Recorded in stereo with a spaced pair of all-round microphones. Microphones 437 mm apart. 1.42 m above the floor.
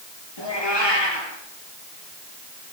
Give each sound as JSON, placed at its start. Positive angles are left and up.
{"t": 0.4, "sound": "a cat meowing", "side_deg": 70, "distance_m": 8.0}